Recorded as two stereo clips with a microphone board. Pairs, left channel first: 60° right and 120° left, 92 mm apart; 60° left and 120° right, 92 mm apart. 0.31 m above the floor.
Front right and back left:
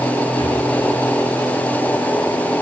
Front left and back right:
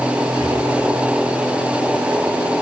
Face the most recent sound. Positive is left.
turn(degrees=-95)